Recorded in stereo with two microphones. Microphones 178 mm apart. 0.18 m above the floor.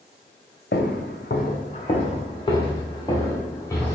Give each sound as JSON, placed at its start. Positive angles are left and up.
{"t": 0.7, "sound": "footsteps", "side_deg": 80, "distance_m": 0.7}